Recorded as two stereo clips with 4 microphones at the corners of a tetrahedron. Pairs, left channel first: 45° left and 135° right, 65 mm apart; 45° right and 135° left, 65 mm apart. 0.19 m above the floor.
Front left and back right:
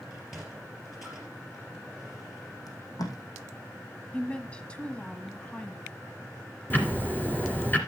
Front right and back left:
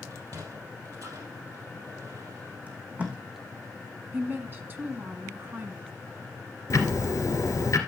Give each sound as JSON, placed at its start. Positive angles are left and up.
{"t": 0.1, "sound": "a sliding door", "azimuth_deg": 140, "distance_m": 3.5}
{"t": 2.7, "sound": "tape being pulled", "azimuth_deg": 70, "distance_m": 2.0}
{"t": 4.1, "sound": "a woman speaking", "azimuth_deg": 105, "distance_m": 1.3}
{"t": 6.7, "sound": "ticking", "azimuth_deg": -15, "distance_m": 2.0}